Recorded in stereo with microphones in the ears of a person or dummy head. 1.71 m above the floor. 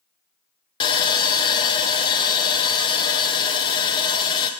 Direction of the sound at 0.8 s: 25° left (ahead or behind).